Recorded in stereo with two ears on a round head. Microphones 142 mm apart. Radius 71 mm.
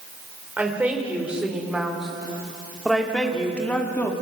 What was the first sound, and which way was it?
A woman speaking, 10° right (ahead or behind).